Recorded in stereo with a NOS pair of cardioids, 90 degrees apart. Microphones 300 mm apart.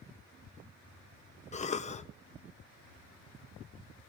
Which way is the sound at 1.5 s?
25° left.